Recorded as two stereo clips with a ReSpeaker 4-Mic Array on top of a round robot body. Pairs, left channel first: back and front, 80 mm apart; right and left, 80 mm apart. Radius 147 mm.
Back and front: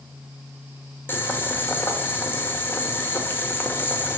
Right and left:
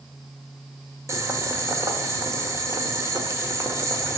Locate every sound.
1.1 s boiling: 125° left, 1.8 m